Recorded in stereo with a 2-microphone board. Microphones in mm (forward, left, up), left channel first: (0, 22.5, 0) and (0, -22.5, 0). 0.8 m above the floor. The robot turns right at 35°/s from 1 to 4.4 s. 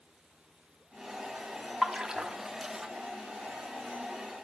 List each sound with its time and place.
1.8 s a splash: 5° right (ahead or behind), 1.0 m; by 2.4 s 25° right (ahead or behind), 1.0 m